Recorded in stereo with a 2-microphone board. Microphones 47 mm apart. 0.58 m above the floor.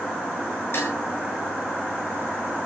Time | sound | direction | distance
0.7 | dishes clattering | 55° left (ahead or behind) | 6 m